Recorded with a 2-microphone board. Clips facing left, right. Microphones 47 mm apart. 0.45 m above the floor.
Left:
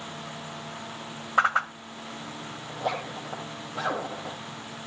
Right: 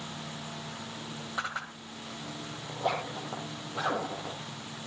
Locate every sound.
1.4 s a whoosh: 55° left (ahead or behind), 0.9 m
2.7 s a zipper: 5° right (ahead or behind), 3.5 m